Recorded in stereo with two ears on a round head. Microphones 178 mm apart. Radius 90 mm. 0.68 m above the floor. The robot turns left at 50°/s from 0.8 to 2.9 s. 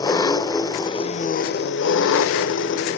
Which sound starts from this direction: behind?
An engine running, at 0.0 s.